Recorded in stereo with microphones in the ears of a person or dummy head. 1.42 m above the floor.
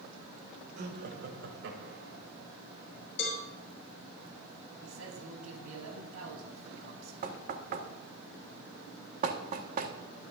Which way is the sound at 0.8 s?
45° right (ahead or behind).